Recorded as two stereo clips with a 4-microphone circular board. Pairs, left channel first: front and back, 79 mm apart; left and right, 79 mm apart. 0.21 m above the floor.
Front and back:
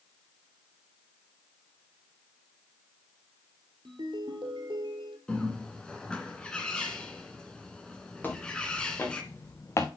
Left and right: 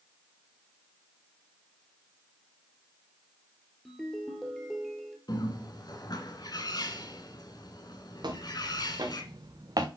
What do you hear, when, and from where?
3.9 s a ringtone: 175° left, 1.8 m
5.3 s a bird: 75° left, 1.4 m
8.2 s footsteps: 70° right, 2.5 m; by 9.9 s 55° right, 1.1 m